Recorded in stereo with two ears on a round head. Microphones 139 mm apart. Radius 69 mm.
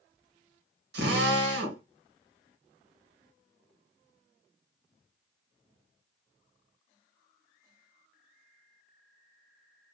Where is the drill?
80° right, 1.5 m.